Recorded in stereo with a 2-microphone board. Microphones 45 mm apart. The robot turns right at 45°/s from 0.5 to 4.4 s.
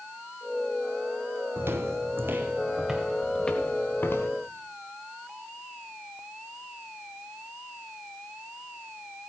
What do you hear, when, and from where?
1.6 s footsteps: 50° right (ahead or behind), 0.8 m; by 4.3 s 65° left (ahead or behind), 3 m